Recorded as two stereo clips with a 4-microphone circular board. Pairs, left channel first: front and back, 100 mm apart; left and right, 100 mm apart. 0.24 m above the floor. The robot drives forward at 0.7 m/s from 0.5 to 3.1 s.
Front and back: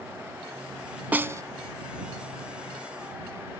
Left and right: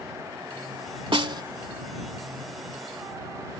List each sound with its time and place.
1.1 s a snare drum: 110° right; by 1.4 s 125° right